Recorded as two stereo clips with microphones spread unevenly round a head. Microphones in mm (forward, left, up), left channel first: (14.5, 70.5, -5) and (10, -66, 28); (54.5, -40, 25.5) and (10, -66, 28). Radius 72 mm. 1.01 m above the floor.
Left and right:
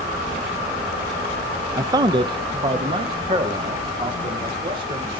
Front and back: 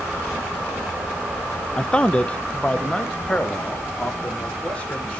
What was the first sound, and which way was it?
A man speaking, 20° right.